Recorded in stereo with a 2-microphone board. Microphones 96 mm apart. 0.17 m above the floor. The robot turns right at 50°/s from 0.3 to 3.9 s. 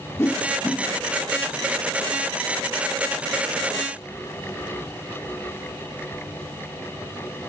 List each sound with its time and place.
0.2 s a whoosh: 30° left (ahead or behind), 2.5 m; by 0.8 s 5° left (ahead or behind), 2.5 m